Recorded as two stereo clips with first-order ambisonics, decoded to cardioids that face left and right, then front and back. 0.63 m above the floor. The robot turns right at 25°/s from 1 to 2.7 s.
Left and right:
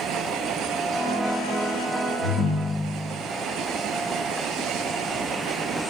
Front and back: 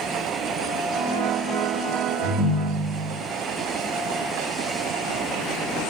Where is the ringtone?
115° left, 0.9 m; by 3.1 s 130° left, 0.9 m.